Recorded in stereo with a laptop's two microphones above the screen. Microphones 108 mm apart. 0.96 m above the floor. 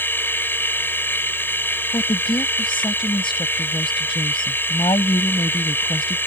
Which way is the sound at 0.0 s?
20° left (ahead or behind).